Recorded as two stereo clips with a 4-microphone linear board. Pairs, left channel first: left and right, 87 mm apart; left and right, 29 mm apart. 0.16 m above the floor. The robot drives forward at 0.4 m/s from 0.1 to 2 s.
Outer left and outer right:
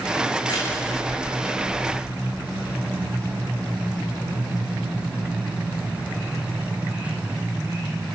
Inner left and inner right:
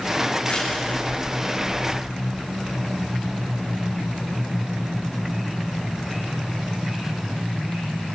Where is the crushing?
60° left (ahead or behind), 9.5 m; by 2.0 s 55° left (ahead or behind), 10 m.